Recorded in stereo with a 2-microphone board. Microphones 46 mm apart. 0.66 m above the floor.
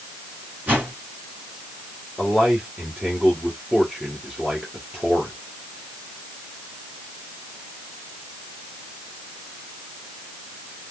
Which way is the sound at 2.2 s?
10° right (ahead or behind).